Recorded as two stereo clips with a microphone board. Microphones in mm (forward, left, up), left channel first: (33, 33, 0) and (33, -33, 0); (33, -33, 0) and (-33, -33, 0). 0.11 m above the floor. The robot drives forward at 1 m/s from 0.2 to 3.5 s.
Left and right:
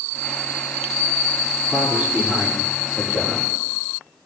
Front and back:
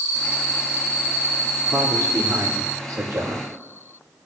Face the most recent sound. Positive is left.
turn(degrees=-160)